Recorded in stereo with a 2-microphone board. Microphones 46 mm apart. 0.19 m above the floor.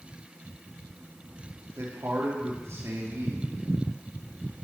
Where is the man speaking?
70° right (ahead or behind), 4 m.